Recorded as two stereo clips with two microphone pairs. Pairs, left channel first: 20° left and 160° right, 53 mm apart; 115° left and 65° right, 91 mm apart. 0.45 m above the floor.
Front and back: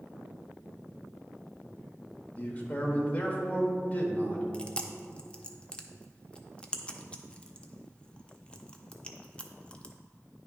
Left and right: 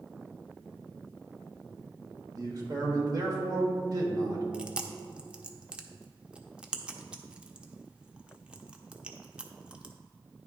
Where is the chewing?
Straight ahead, 0.6 m.